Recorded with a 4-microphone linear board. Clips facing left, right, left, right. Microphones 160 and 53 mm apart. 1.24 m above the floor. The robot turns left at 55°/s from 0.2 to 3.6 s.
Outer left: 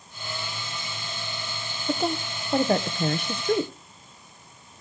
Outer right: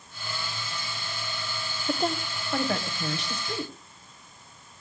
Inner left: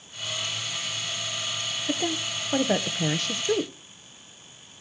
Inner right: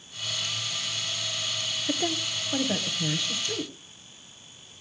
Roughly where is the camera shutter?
I don't hear a camera shutter.